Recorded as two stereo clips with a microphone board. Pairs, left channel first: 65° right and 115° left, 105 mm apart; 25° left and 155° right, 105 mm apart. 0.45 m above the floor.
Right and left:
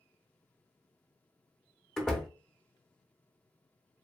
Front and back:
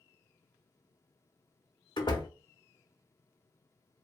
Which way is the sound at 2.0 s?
20° left.